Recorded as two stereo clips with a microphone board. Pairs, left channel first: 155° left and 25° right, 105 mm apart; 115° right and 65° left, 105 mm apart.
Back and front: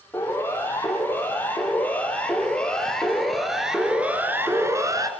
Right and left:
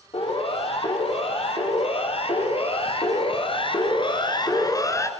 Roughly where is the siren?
Behind right.